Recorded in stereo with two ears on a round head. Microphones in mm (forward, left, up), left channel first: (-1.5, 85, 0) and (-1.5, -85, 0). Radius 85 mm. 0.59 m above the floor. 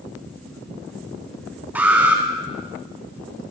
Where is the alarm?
10° right (ahead or behind), 3 m.